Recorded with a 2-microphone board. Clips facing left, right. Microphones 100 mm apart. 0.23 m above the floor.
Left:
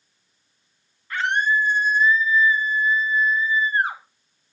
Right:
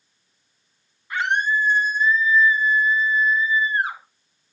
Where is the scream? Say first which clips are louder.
Even; 15° right (ahead or behind), 1.9 m; by 4.0 s 35° left (ahead or behind), 1.5 m.